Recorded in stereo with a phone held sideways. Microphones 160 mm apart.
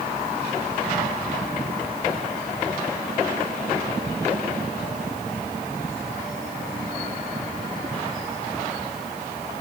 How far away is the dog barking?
No dog barking in this recording.